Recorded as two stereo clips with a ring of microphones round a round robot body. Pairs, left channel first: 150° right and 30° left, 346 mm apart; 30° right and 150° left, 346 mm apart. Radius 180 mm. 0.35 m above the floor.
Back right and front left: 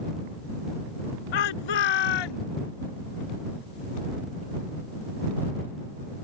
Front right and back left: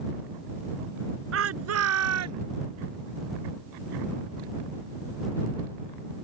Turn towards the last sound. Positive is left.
turn(degrees=-165)